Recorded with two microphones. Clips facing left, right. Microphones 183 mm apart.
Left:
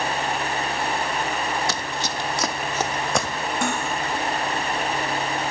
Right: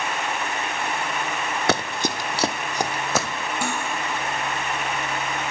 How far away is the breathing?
No breathing in this recording.